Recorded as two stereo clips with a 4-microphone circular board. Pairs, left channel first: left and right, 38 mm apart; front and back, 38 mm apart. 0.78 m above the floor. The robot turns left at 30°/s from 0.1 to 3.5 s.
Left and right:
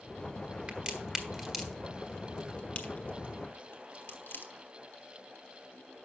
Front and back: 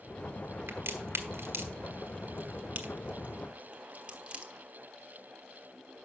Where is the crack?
155° right, 1.4 m; by 4.5 s 120° left, 1.4 m.